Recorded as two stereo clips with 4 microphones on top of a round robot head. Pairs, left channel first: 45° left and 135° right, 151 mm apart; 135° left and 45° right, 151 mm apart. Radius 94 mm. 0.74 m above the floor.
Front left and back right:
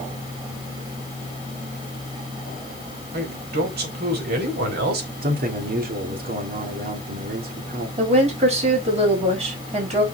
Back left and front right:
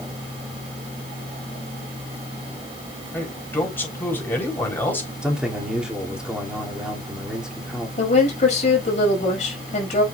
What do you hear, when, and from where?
3.1 s a man speaking: 150° right, 4 m
5.2 s a man speaking: 130° right, 2.5 m
8.0 s a woman speaking: straight behind, 5.5 m